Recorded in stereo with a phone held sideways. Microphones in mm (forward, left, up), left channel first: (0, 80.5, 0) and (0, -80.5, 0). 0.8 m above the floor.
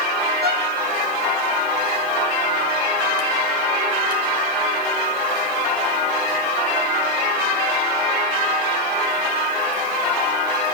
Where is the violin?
85° right, 6 m.